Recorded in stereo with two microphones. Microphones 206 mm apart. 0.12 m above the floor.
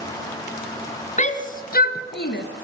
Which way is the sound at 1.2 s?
35° left (ahead or behind).